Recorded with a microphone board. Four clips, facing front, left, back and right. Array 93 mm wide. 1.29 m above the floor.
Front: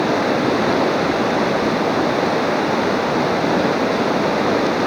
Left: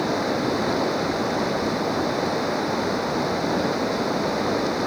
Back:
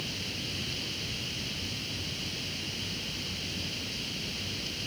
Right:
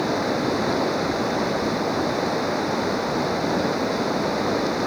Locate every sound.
0.0 s running water: straight ahead